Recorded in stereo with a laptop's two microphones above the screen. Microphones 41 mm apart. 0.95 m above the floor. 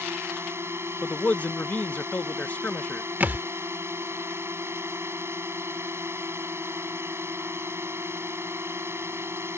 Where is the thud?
45° right (ahead or behind).